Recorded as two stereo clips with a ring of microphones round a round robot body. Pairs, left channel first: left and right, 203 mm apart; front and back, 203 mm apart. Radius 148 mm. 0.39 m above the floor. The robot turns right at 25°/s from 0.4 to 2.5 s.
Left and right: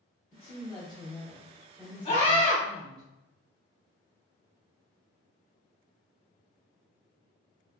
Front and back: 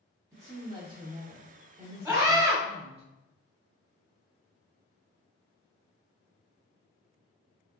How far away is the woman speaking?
About 0.8 m.